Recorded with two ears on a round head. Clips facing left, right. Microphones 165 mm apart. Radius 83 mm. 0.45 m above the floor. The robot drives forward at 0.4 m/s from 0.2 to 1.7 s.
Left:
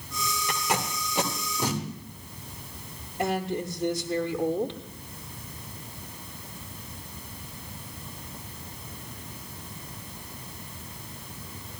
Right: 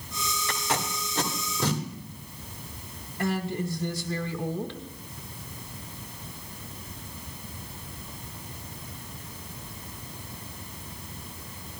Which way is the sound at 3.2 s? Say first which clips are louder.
Left 1 dB; 20° left (ahead or behind).